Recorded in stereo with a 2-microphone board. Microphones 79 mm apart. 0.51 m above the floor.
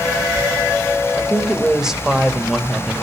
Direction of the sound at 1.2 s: 5° right (ahead or behind).